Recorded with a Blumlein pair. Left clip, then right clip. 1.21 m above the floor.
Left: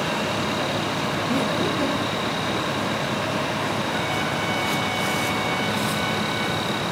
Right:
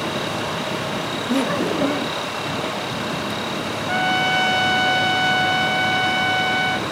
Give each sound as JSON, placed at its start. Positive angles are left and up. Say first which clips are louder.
{"t": 1.3, "sound": "laughter", "louder": "right 5 dB", "azimuth_deg": -20, "distance_m": 1.4}
{"t": 3.9, "sound": "a trumpet", "louder": "right 6 dB", "azimuth_deg": -55, "distance_m": 1.8}